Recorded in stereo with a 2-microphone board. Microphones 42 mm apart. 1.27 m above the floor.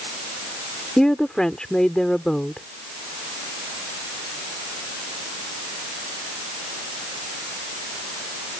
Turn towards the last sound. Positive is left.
turn(degrees=15)  # may be behind; listen again after turning